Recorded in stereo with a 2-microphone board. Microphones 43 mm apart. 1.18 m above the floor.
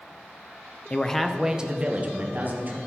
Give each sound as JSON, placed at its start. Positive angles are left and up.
{"t": 0.9, "sound": "a man speaking", "side_deg": 25, "distance_m": 0.7}